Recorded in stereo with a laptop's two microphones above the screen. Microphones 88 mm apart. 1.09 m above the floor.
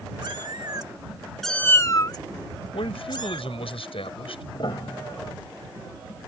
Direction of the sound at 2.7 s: 80° left.